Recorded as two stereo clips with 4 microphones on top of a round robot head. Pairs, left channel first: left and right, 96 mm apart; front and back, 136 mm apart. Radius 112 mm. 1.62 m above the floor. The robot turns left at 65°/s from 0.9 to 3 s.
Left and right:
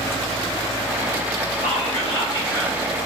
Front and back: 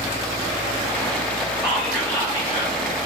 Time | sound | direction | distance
1.6 | whispering | 105° left | 1.6 m